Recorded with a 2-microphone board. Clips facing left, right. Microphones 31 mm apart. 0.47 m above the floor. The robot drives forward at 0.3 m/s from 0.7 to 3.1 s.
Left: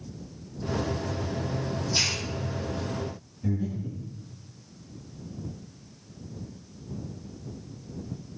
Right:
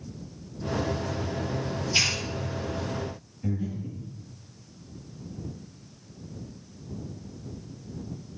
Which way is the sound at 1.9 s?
90° right.